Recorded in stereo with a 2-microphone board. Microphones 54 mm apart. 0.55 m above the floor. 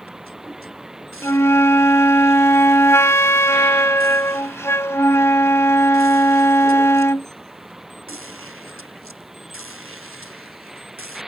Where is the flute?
60° left (ahead or behind).